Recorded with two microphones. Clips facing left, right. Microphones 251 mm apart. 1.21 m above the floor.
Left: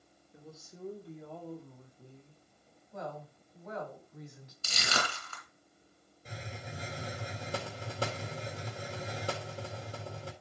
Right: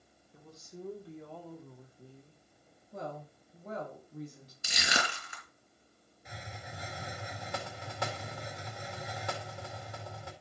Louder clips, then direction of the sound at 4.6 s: Even; 15° right (ahead or behind).